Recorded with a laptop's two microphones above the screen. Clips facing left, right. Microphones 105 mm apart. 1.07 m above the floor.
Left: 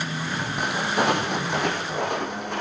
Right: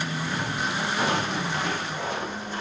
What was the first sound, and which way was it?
Footsteps, 60° left (ahead or behind).